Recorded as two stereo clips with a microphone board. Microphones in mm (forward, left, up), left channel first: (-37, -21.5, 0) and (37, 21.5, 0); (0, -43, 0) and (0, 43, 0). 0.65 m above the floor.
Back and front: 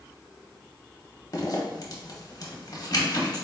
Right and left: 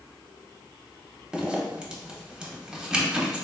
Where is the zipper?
170° left, 0.6 m.